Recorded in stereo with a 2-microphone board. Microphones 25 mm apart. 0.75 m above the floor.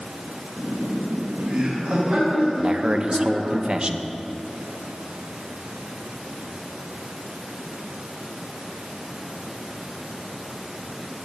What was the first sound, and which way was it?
Laughter, 65° right (ahead or behind).